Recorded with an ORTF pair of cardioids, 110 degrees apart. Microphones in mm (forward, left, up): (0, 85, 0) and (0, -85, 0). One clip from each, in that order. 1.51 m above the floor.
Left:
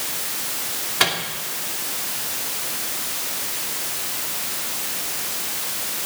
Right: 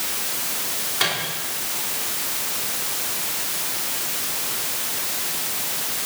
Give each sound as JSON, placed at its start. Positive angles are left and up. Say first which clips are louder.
{"t": 1.0, "sound": "a microwave", "louder": "left 3 dB", "azimuth_deg": 35, "distance_m": 2.5}